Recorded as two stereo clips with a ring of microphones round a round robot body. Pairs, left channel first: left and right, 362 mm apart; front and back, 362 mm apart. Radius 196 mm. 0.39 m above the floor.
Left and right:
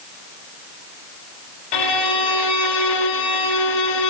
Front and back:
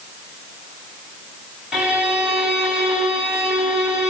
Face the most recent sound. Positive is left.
turn(degrees=90)